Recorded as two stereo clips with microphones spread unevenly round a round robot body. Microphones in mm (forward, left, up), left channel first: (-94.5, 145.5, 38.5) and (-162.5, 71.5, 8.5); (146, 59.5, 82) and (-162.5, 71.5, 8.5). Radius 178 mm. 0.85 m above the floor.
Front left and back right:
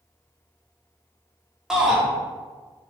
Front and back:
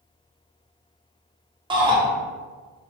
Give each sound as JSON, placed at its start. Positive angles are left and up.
{"t": 1.7, "sound": "a shout", "azimuth_deg": -175, "distance_m": 0.8}